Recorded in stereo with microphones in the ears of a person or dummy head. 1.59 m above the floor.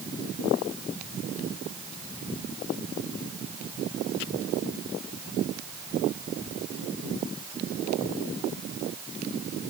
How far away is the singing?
I don't hear singing.